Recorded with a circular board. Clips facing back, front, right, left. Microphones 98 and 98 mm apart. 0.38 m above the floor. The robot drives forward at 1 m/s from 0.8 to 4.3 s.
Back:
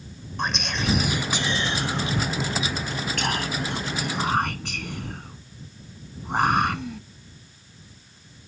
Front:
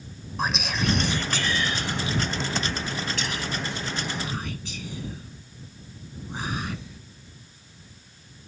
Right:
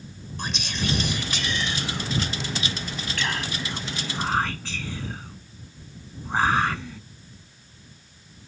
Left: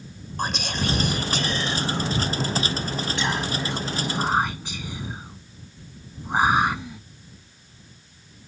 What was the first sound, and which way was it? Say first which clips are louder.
Whispering: front 1 dB, left 4 dB; 90° left.